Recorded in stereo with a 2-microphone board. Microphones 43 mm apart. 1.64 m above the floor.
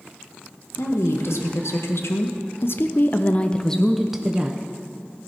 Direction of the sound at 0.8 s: 80° left.